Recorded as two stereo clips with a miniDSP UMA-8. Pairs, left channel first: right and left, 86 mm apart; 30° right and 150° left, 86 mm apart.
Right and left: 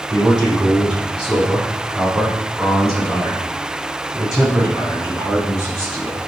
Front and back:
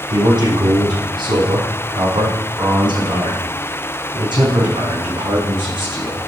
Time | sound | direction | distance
0.1 | a man speaking | 175° left | 6 m